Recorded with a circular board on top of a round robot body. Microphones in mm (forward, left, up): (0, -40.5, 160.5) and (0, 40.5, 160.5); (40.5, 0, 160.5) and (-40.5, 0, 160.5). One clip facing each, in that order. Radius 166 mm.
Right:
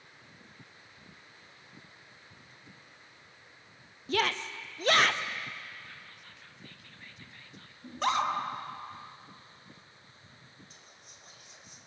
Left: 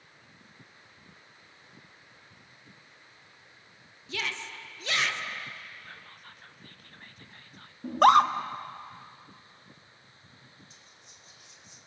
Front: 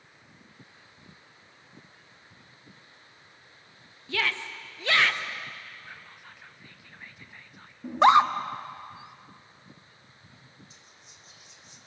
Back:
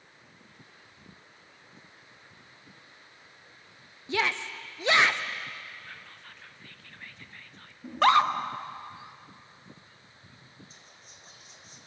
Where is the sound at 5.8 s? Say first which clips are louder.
Left 2 dB, even; 70° left, 1.3 m.